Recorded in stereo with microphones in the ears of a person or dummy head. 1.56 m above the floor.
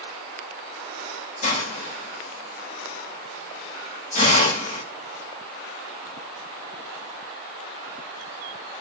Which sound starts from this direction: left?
A hiss, at 1.4 s.